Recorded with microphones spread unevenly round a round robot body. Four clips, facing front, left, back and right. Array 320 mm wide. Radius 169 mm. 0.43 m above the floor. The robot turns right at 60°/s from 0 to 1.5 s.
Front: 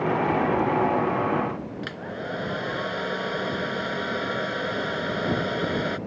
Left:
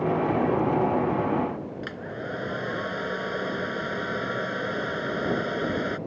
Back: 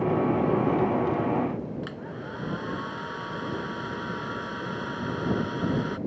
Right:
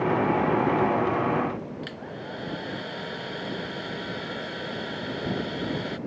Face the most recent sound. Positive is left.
turn(degrees=25)